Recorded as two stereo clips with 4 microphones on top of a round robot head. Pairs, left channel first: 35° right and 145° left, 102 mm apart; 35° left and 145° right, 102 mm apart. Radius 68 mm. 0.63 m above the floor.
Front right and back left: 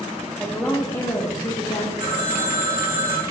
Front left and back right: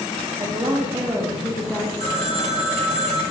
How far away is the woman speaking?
About 0.9 m.